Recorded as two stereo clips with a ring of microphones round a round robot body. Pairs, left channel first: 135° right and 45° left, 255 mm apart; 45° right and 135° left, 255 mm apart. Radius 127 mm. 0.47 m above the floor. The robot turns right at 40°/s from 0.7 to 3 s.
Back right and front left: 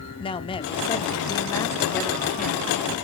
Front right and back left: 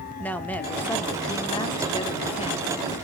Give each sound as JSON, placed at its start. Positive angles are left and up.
{"t": 0.2, "sound": "a woman speaking", "azimuth_deg": -120, "distance_m": 0.8}